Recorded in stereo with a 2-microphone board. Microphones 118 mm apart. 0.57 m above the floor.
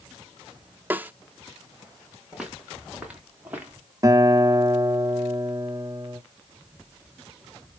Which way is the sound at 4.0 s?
30° right (ahead or behind).